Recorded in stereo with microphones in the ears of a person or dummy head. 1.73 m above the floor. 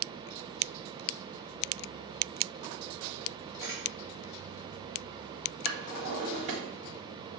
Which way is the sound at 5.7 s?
45° right (ahead or behind).